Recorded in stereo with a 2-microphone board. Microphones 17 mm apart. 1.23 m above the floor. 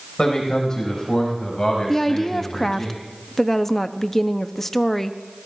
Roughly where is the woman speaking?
Centre.